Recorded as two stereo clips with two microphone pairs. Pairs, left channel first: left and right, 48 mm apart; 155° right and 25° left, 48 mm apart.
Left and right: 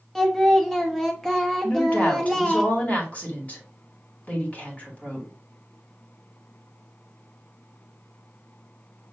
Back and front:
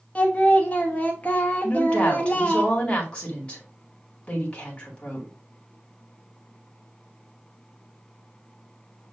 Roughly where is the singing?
Behind.